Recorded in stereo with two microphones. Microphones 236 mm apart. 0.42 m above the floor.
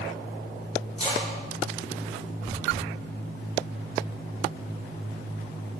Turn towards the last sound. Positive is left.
turn(degrees=25)  # may be behind; listen again after turning